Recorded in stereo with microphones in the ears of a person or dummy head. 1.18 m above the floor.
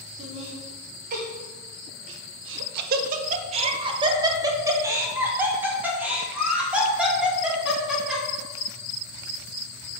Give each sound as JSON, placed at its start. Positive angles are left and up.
{"t": 0.2, "sound": "laughter", "side_deg": -30, "distance_m": 1.6}